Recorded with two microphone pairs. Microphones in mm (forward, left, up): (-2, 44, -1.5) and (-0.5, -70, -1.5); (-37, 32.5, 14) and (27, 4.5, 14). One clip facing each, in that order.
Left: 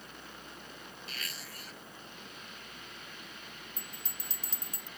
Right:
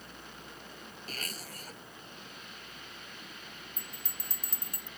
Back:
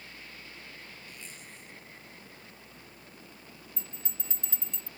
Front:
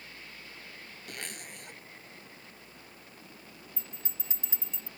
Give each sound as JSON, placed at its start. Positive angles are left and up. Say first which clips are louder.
{"t": 1.1, "sound": "a zipper", "louder": "right 5 dB, front 5 dB", "azimuth_deg": -40}
{"t": 3.8, "sound": "a bell", "louder": "even, back 1 dB", "azimuth_deg": -110}